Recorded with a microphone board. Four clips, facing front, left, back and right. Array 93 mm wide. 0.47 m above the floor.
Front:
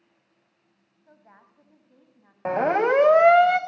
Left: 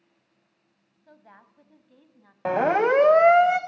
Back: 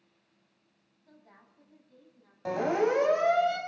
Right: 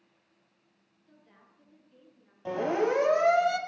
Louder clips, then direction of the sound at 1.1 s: Left 8 dB, front 4 dB; 65° left.